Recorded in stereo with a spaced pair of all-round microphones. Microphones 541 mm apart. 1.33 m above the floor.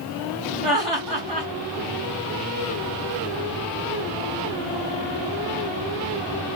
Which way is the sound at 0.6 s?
75° right (ahead or behind).